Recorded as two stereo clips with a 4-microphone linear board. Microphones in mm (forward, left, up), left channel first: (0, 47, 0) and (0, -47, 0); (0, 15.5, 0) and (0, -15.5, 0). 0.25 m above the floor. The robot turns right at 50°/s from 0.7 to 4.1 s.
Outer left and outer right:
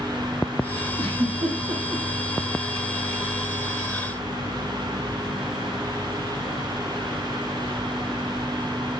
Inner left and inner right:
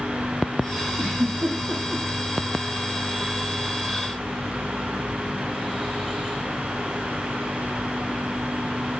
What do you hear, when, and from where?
1.0 s a giggle: 70° right (ahead or behind), 8 m; by 2.0 s 55° right (ahead or behind), 8 m